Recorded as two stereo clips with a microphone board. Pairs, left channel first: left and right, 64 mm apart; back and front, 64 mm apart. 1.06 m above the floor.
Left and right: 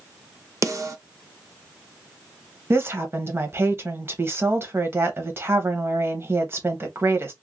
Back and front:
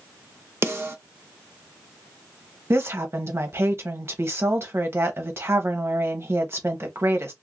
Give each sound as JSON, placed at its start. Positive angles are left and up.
{"t": 0.6, "sound": "a snare drum", "azimuth_deg": -50, "distance_m": 0.6}
{"t": 2.7, "sound": "a woman speaking", "azimuth_deg": -45, "distance_m": 0.8}